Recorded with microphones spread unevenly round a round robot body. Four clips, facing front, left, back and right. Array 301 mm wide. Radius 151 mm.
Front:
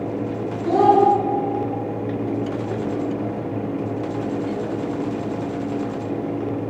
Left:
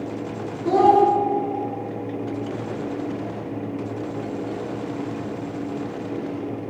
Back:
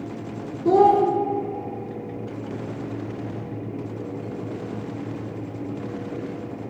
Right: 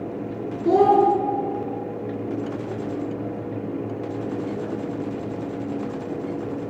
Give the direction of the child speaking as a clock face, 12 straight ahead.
6 o'clock.